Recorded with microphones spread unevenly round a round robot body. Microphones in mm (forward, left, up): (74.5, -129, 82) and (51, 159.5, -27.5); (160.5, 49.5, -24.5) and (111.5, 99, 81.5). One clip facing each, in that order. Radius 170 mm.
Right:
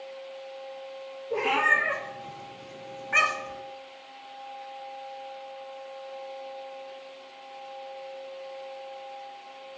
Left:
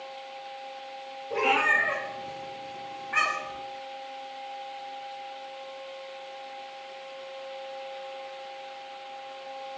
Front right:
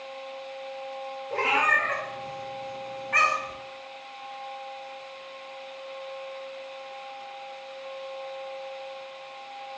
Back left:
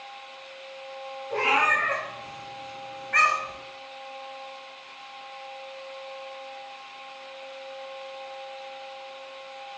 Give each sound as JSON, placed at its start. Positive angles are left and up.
{"t": 1.3, "sound": "a cat meowing", "azimuth_deg": 180, "distance_m": 0.9}